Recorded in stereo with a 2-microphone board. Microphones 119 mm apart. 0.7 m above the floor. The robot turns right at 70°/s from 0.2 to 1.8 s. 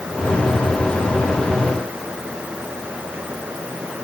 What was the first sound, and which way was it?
Only background noise.